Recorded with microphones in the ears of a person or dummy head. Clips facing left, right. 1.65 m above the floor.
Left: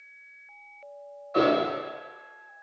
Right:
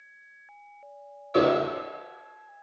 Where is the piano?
50° right (ahead or behind), 0.9 m.